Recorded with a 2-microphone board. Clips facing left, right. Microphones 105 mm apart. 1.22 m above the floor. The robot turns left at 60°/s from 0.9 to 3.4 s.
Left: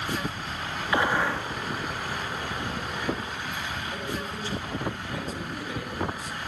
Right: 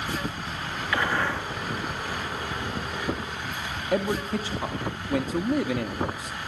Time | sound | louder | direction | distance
0.9 | a gunshot | left 2 dB | 25° left | 1.9 m
3.9 | a man speaking | right 8 dB | 80° right | 1.8 m